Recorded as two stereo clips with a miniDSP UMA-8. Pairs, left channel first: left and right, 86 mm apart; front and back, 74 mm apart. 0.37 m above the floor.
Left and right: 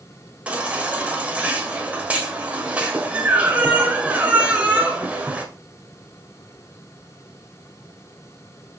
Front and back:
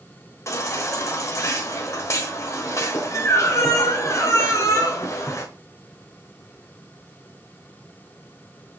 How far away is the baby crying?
About 1.3 m.